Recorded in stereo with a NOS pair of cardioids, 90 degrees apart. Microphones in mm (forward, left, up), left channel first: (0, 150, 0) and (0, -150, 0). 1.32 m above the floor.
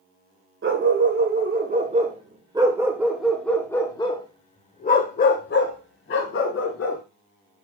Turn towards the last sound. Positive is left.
turn(degrees=50)